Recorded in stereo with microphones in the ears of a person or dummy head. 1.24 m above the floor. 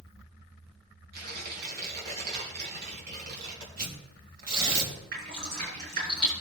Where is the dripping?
55° right (ahead or behind), 6 m.